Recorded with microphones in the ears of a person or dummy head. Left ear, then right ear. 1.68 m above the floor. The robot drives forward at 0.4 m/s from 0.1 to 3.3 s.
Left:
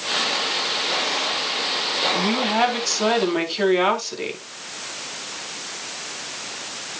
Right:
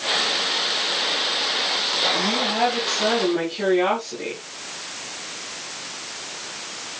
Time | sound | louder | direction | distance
2.1 | a woman speaking | left 1 dB | 60° left (ahead or behind) | 5 m